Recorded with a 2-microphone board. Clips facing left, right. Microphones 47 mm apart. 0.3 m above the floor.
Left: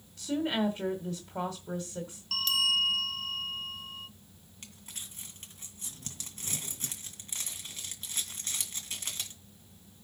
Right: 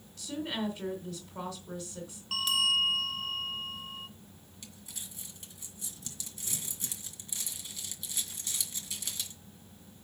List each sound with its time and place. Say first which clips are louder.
0.2 s a woman speaking: left 5 dB; 40° left (ahead or behind), 1.8 m
2.3 s a bell: even; 15° right (ahead or behind), 0.9 m
4.6 s crumpling: left 1 dB; 45° left (ahead or behind), 2 m